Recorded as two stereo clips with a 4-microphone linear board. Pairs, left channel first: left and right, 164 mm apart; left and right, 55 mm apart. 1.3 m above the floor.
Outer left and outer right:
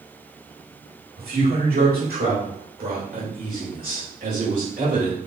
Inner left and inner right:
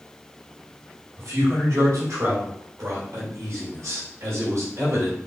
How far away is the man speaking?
About 1.6 m.